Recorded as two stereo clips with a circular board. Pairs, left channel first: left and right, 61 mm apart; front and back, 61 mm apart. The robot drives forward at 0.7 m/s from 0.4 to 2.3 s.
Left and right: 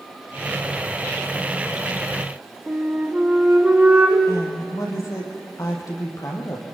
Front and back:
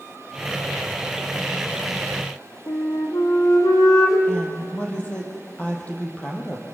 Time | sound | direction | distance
2.7 | a flute | 20° right | 4.5 m
4.3 | a woman speaking | 65° left | 5 m